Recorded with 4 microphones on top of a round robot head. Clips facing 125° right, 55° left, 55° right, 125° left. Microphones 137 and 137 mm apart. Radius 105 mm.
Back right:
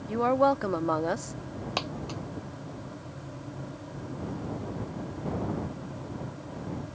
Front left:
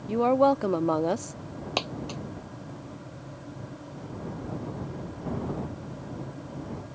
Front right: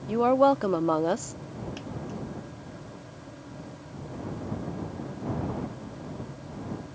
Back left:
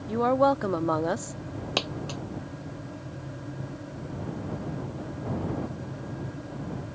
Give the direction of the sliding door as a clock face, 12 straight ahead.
No sliding door in this recording.